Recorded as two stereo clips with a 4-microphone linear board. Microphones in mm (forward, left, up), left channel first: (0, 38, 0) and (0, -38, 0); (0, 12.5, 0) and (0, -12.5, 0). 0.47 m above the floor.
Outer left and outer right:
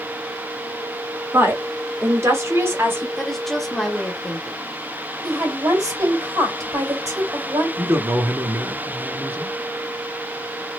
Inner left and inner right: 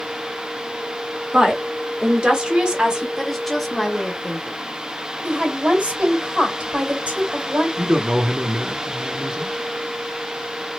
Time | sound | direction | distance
1.3 | a woman speaking | 35° right (ahead or behind) | 1.2 m
3.2 | a woman speaking | 5° left (ahead or behind) | 0.8 m
5.2 | a woman speaking | 55° right (ahead or behind) | 2 m
7.8 | a man speaking | 30° right (ahead or behind) | 0.7 m